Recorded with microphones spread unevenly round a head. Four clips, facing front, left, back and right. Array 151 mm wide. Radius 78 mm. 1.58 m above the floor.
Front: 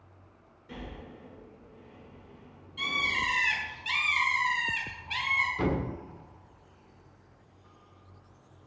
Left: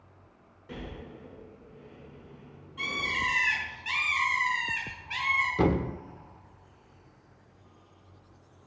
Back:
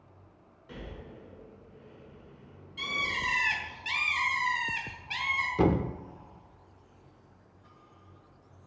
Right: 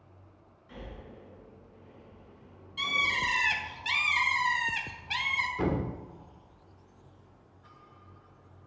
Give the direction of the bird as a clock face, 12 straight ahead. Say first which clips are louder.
Right 1 dB, front 2 dB; 3 o'clock.